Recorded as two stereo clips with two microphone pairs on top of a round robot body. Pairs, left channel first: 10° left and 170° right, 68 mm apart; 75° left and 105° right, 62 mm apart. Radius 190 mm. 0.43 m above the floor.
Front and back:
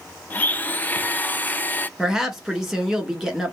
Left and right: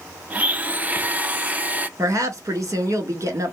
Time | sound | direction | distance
0.3 | a blender | 45° right | 0.6 m
2.0 | a woman speaking | 85° right | 1.5 m